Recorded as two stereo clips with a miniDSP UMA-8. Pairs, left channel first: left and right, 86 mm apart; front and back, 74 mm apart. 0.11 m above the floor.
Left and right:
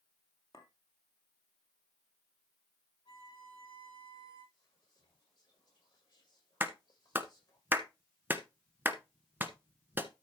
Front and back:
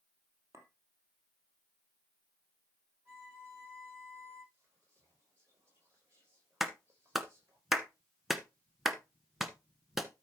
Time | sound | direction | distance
0.5 | a clink | 130° left | 2.5 m
3.0 | a violin | 115° left | 7.5 m
4.5 | whispering | 120° left | 6.5 m
6.6 | a clap | 100° right | 1.1 m